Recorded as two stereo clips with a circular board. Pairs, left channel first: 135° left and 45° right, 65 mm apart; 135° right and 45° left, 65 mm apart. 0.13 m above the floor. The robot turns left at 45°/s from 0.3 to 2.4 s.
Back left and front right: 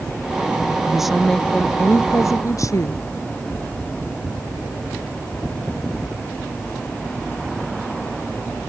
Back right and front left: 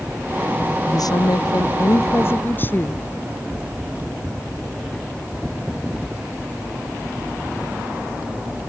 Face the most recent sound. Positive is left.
turn(degrees=165)